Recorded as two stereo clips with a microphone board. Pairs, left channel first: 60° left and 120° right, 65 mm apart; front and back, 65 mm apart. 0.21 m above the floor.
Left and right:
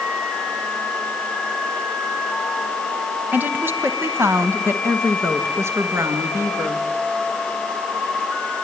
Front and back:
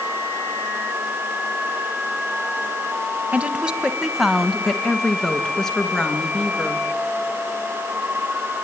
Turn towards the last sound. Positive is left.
turn(degrees=-75)